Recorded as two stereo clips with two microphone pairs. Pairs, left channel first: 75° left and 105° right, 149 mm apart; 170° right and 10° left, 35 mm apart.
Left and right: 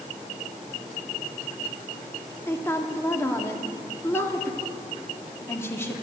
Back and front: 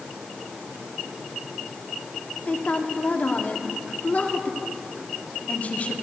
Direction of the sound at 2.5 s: 150° left.